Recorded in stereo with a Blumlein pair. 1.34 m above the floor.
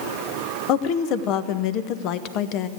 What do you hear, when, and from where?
0.7 s a woman speaking: 40° left, 0.9 m